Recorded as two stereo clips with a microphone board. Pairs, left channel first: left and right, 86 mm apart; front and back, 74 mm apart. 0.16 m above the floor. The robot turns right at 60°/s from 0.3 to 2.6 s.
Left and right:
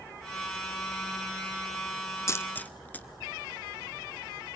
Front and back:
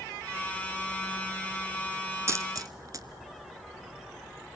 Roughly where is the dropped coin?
Behind left.